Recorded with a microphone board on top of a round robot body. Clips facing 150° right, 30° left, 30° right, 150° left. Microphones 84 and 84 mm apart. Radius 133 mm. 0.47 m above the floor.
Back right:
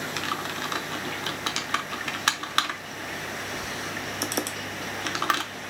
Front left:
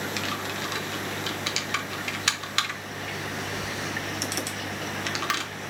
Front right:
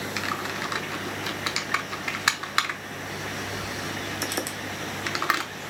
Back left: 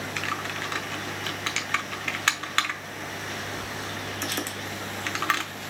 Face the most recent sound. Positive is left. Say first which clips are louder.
# back right 1 dB, front right 1 dB
turn(degrees=-105)